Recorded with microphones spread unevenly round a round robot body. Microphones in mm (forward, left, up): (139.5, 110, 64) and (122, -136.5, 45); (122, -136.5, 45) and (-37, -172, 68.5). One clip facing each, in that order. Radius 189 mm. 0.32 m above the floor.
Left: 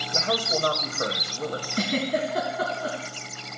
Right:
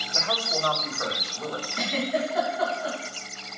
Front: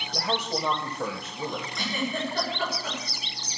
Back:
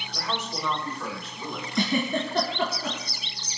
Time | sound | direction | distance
0.1 | a man speaking | 50° left | 1.7 m
1.8 | a giggle | 145° left | 2 m